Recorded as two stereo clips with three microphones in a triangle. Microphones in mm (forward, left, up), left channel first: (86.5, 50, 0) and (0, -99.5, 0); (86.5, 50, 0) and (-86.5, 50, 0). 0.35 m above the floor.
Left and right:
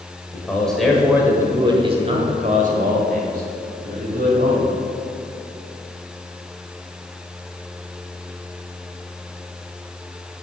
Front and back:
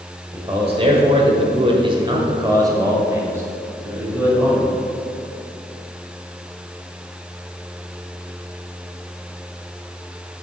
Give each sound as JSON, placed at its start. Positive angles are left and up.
{"t": 0.3, "sound": "a man speaking", "azimuth_deg": 135, "distance_m": 1.3}